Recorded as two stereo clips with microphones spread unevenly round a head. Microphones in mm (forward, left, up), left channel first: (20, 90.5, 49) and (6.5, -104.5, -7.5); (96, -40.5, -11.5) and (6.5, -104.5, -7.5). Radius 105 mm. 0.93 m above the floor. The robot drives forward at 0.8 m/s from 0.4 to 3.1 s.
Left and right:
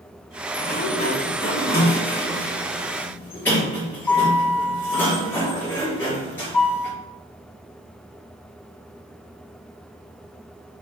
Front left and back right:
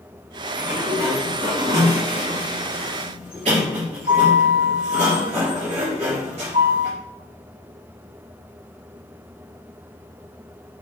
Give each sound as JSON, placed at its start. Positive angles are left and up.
{"t": 0.5, "sound": "a sliding door", "azimuth_deg": 140, "distance_m": 1.9}